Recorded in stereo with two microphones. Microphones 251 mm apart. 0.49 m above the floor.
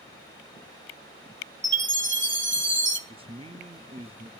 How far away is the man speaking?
About 0.7 m.